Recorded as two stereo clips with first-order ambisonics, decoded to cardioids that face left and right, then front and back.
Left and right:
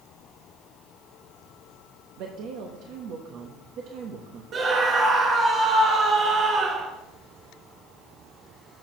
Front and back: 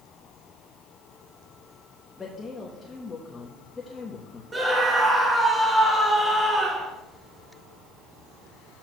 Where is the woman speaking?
75° right, 1.0 m.